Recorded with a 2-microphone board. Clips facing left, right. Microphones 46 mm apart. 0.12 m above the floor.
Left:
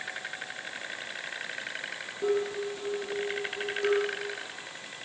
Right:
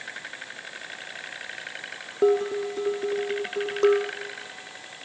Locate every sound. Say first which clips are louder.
2.2 s dishes clattering: right 7 dB; 55° right (ahead or behind), 3 m